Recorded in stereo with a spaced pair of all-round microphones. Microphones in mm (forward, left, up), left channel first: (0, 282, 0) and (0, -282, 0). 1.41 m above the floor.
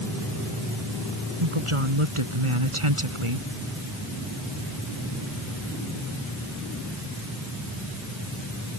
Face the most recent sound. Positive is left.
turn(degrees=-65)  # may be behind; listen again after turning